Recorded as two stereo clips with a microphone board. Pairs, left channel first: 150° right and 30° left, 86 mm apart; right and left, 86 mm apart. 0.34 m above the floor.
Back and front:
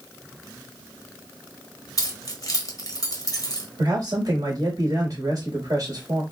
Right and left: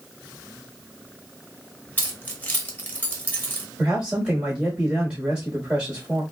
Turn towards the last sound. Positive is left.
turn(degrees=20)